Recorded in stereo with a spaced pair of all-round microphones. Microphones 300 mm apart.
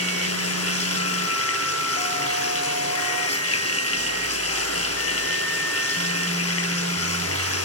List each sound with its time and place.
0.0 s running water: 55° left (ahead or behind), 8 m